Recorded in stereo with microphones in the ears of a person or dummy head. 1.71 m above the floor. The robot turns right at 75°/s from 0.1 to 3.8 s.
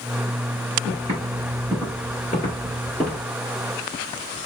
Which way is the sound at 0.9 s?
35° right (ahead or behind).